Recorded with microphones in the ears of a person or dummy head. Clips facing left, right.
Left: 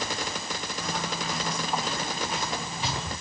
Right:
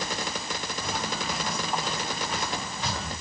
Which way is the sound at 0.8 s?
5° right (ahead or behind).